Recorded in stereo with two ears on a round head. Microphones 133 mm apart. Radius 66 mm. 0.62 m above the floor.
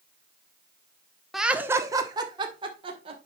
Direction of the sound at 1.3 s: Centre (ahead or behind).